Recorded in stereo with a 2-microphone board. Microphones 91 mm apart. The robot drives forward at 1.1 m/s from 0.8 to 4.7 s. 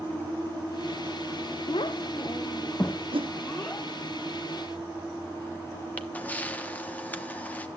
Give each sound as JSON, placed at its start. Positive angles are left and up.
{"t": 1.7, "sound": "a child speaking", "side_deg": 65, "distance_m": 0.6}
{"t": 3.1, "sound": "a whoosh", "side_deg": -75, "distance_m": 0.8}
{"t": 6.0, "sound": "a camera shutter", "side_deg": 20, "distance_m": 1.1}